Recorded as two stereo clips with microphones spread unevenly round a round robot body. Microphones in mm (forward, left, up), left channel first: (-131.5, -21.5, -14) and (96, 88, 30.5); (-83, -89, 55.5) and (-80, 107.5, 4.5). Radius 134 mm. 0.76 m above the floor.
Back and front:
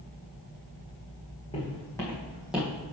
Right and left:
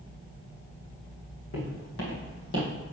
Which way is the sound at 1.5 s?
80° right.